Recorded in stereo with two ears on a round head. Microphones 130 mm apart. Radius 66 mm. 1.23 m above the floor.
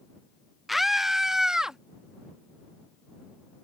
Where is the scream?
Centre (ahead or behind); by 1.8 s 5° right (ahead or behind).